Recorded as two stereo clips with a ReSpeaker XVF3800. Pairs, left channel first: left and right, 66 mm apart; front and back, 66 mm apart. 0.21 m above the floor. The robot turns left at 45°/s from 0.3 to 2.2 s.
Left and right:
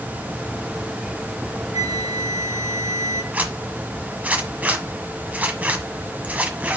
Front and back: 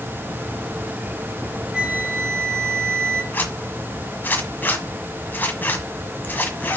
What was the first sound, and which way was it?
A flute, 110° right.